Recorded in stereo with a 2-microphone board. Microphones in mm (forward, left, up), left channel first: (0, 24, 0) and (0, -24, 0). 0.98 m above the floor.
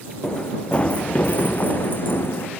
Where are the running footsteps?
15° left (ahead or behind); by 2.5 s 55° left (ahead or behind).